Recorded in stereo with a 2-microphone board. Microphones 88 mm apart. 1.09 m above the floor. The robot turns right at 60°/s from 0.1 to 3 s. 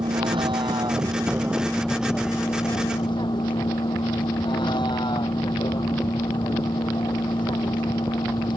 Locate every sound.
0.0 s a vehicle: 105° right; by 8.6 s 70° left